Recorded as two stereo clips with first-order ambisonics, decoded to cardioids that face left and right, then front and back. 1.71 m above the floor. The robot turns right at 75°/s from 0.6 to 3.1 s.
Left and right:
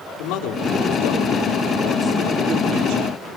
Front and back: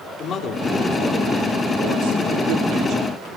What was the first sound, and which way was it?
A man speaking, 65° left.